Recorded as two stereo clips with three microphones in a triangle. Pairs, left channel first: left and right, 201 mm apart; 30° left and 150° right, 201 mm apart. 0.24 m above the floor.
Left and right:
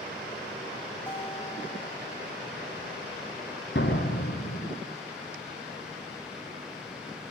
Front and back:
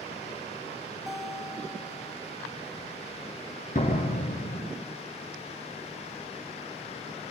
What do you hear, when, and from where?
1.1 s a guitar: 120° left, 1.4 m
3.8 s a door slam: 75° left, 3 m